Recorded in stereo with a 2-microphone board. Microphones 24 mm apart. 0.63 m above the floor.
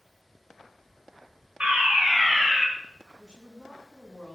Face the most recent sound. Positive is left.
turn(degrees=-30)  # may be behind; listen again after turning